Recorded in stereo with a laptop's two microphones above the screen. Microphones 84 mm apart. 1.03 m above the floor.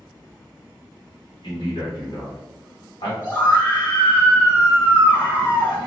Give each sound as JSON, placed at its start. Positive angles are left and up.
{"t": 1.4, "sound": "a man speaking", "side_deg": 70, "distance_m": 2.0}
{"t": 3.2, "sound": "a scream", "side_deg": 20, "distance_m": 1.4}